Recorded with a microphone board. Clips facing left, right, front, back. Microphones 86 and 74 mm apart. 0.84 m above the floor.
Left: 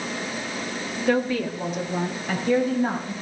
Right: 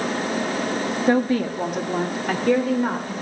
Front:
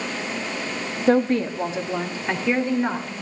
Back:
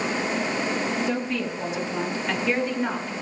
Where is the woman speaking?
30° right, 1.4 m; by 3.1 s 75° right, 3.5 m.